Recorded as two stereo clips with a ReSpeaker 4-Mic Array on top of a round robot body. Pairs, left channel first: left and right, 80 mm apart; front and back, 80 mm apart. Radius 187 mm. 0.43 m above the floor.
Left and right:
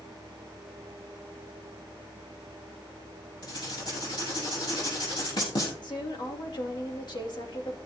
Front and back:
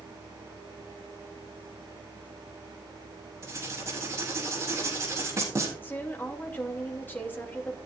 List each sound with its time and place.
3.4 s writing: 125° left, 4.5 m
5.8 s a woman speaking: 65° left, 2.5 m